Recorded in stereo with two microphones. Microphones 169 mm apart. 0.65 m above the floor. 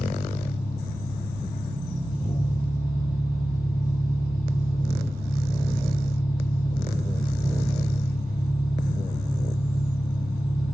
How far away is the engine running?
About 4 m.